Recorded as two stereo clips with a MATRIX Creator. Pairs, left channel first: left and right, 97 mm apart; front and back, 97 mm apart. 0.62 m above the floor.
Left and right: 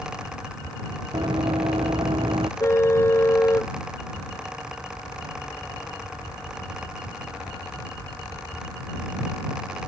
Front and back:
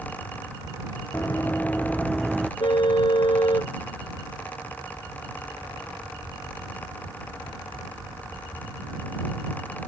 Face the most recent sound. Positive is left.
turn(degrees=30)